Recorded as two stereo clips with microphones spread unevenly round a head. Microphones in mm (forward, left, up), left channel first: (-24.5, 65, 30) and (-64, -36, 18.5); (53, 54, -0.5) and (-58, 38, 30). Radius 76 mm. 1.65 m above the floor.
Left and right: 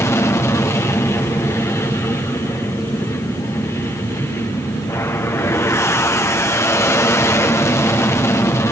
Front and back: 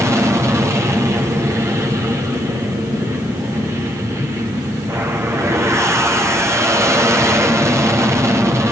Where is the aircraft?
120° left.